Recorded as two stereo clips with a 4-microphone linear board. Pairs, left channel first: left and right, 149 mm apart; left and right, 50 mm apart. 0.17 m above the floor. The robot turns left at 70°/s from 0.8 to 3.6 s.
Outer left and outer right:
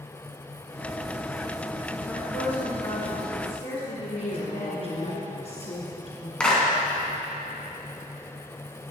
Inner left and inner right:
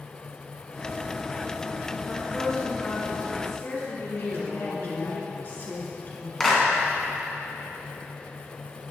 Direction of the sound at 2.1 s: 170° right.